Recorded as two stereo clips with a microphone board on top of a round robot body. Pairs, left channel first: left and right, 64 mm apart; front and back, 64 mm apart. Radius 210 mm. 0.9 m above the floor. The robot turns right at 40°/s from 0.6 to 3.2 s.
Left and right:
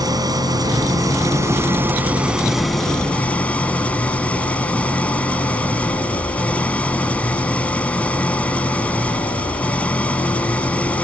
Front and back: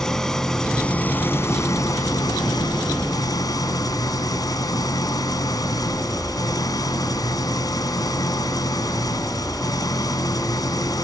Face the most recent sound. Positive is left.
turn(degrees=20)